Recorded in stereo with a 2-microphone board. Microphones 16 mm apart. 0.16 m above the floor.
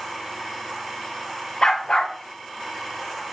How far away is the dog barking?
About 3.5 m.